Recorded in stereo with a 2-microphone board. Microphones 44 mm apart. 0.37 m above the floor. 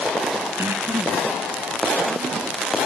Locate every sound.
0.6 s breathing: 80° right, 1.6 m